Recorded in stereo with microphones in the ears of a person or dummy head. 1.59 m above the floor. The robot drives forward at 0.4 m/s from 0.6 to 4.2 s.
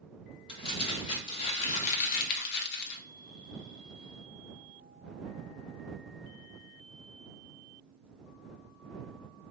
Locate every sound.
0.5 s crumpling: 25° left (ahead or behind), 1.4 m; by 3.0 s 70° left (ahead or behind), 0.7 m